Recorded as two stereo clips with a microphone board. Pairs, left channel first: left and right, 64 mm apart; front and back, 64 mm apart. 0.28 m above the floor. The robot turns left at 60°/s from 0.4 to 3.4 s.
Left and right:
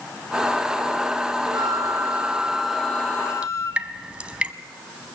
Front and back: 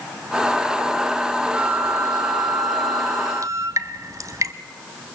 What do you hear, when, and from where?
1.4 s a flute: 105° right, 1.3 m; by 3.8 s 135° left, 1.3 m
3.4 s dripping: 160° right, 1.2 m